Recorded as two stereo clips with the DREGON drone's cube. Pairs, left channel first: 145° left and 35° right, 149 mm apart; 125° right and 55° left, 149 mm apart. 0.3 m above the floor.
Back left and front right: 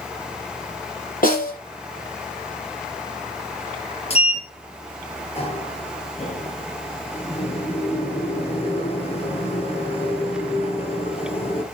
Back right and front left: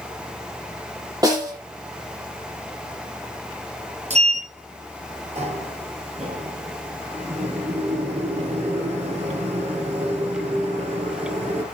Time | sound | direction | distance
1.2 | a snare drum | 120° left | 7 m
4.1 | a sliding door | 100° left | 2.5 m